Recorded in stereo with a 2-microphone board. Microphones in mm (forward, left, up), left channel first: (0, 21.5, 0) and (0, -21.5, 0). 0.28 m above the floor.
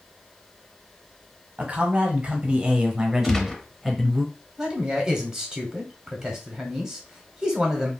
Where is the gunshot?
10° left (ahead or behind), 0.8 m.